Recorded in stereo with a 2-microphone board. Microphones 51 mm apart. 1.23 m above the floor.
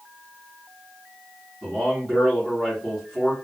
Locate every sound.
1.6 s a man speaking: 5° left (ahead or behind), 1.9 m